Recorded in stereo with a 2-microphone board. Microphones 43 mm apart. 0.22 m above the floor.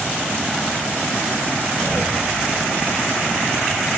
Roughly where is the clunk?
Right.